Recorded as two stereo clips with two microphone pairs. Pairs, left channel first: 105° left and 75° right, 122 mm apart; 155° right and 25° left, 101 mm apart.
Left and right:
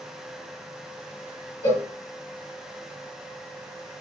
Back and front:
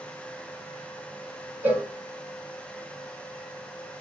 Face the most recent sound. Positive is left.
turn(degrees=80)